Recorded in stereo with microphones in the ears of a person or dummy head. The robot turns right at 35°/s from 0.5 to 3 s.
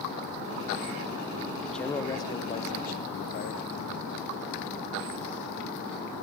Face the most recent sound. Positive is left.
turn(degrees=50)